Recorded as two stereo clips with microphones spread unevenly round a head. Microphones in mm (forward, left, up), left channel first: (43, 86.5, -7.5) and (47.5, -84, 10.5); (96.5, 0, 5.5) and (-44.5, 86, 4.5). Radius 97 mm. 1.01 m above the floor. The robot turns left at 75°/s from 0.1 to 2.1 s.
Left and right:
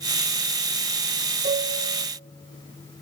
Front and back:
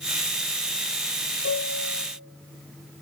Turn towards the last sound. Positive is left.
turn(degrees=-80)